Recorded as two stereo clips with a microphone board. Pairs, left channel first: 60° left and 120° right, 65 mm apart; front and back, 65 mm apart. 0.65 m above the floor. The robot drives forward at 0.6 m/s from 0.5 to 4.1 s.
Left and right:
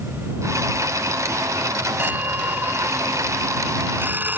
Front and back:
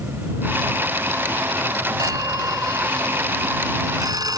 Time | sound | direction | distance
2.0 | a phone ringing | straight behind | ?